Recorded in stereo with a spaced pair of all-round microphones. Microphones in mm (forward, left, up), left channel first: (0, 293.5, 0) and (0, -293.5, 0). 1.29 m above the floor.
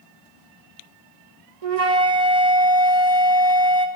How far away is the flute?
About 1.2 m.